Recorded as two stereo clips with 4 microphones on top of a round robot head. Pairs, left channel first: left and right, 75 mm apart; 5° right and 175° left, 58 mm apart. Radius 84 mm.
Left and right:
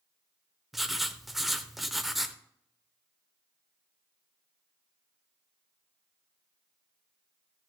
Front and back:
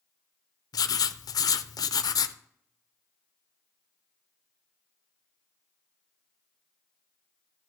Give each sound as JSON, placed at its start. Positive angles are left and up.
{"t": 0.7, "sound": "writing", "azimuth_deg": 0, "distance_m": 0.5}